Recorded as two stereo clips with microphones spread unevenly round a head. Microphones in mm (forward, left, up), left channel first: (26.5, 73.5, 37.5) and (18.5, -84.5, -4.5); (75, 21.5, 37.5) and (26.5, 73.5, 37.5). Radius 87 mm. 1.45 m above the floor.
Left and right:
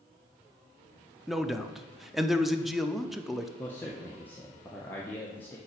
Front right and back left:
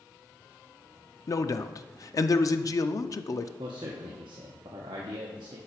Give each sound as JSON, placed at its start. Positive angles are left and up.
{"t": 1.3, "sound": "a man speaking", "azimuth_deg": -5, "distance_m": 0.6}
{"t": 3.6, "sound": "a man speaking", "azimuth_deg": 160, "distance_m": 0.7}